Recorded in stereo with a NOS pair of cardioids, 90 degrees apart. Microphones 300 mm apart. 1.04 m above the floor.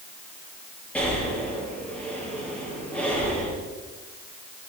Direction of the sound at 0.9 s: 5° left.